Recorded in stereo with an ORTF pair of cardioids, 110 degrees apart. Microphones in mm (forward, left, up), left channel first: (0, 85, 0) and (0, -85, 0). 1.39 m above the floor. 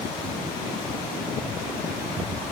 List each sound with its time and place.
Only background noise.